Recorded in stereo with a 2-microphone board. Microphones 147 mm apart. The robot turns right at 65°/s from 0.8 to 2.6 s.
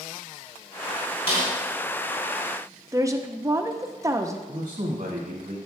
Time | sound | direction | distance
1.3 | a snare drum | 40° left (ahead or behind) | 3.5 m
2.9 | a woman speaking | 20° right (ahead or behind) | 0.5 m
4.5 | a man speaking | 60° right (ahead or behind) | 2 m